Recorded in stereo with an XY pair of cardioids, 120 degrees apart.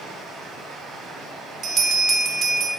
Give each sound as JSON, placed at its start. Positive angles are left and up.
{"t": 0.0, "sound": "running water", "azimuth_deg": -70, "distance_m": 2.0}
{"t": 1.6, "sound": "a bell", "azimuth_deg": -50, "distance_m": 1.2}